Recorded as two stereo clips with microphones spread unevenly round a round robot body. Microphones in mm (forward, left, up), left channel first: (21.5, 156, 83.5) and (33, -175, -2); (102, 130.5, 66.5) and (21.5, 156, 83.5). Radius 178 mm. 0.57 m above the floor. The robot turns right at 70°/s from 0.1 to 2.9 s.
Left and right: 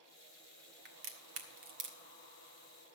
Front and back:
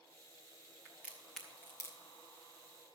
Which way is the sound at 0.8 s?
125° right.